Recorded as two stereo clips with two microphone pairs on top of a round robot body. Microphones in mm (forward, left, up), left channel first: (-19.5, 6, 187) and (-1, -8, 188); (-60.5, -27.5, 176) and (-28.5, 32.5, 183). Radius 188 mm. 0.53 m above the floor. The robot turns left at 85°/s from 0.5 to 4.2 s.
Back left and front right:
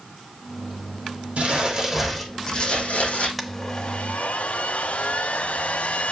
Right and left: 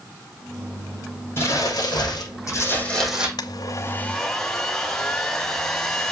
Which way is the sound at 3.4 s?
135° right.